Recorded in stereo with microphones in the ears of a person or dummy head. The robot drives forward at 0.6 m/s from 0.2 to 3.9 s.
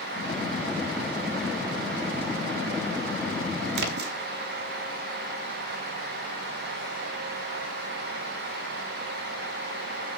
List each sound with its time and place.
3.8 s a splash: 60° right (ahead or behind), 0.9 m; by 4.1 s 55° right (ahead or behind), 1.0 m